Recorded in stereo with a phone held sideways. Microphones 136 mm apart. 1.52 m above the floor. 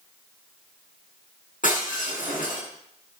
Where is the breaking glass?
85° left, 9.5 m.